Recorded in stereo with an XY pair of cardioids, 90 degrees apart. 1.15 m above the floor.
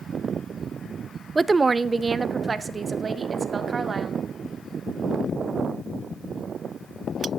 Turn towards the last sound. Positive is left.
turn(degrees=-40)